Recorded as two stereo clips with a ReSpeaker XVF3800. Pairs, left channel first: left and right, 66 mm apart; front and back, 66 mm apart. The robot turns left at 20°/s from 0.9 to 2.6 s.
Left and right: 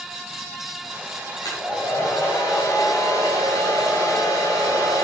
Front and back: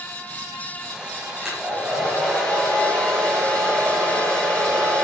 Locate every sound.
1.4 s a hair dryer: 100° left, 5.5 m; by 5.0 s 75° left, 5.5 m